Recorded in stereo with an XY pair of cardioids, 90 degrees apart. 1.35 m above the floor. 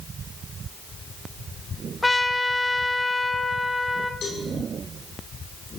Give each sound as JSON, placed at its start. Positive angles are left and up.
{"t": 2.0, "sound": "a trumpet", "azimuth_deg": 15, "distance_m": 0.8}
{"t": 4.2, "sound": "a cowbell", "azimuth_deg": 70, "distance_m": 5.5}